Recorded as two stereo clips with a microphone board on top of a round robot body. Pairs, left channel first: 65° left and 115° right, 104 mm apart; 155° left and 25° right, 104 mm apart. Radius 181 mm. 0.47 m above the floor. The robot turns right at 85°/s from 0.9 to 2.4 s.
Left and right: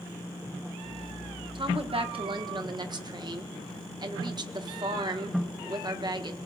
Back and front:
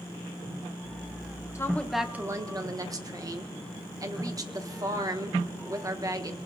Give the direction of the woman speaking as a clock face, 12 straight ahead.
5 o'clock.